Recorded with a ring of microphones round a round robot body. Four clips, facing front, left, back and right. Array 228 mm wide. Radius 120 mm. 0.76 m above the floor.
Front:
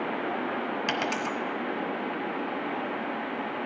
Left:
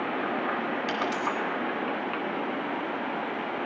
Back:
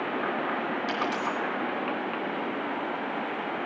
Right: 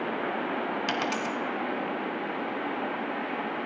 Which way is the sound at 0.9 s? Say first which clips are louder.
Left 1 dB, back 1 dB; 40° right.